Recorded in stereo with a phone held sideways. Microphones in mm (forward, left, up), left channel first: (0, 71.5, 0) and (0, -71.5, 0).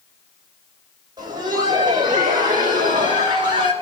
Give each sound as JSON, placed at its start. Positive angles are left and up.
{"t": 1.2, "sound": "laughter", "side_deg": -30, "distance_m": 5.0}